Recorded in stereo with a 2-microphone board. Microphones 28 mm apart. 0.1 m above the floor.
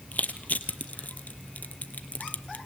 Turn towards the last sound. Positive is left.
turn(degrees=60)  # may be behind; listen again after turning